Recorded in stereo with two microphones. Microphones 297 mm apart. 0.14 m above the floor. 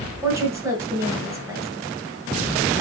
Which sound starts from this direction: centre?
A woman speaking, at 0.2 s.